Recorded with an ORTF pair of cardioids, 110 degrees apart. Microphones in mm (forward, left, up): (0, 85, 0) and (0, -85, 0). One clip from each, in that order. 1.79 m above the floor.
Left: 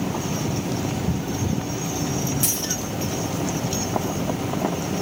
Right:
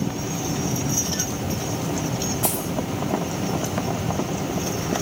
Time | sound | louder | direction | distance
2.4 | a dropped coin | left 1 dB | 70° left | 4 m